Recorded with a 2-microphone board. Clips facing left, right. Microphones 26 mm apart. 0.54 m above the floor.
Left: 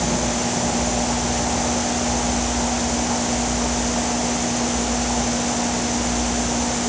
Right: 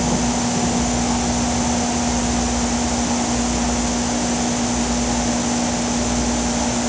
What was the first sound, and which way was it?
Only background noise.